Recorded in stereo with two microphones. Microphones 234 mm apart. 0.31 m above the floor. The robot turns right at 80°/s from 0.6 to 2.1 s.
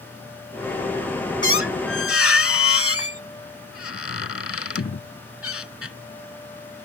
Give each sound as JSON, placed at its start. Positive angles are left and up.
{"t": 1.4, "sound": "a squeak", "azimuth_deg": 55}